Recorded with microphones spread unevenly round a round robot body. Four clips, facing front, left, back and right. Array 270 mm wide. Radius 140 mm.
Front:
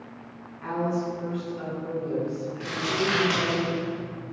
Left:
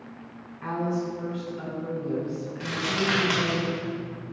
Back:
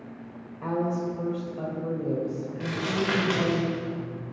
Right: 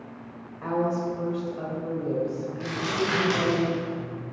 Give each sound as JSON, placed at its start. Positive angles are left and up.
{"t": 0.6, "sound": "a woman speaking", "azimuth_deg": -160, "distance_m": 2.5}
{"t": 2.6, "sound": "crumpling", "azimuth_deg": 165, "distance_m": 2.0}